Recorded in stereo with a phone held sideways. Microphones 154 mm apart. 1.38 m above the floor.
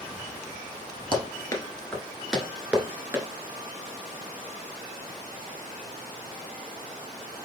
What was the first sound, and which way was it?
Running footsteps, 30° left (ahead or behind).